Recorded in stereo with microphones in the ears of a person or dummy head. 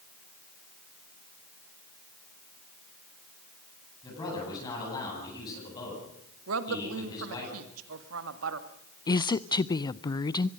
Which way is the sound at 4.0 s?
25° left (ahead or behind).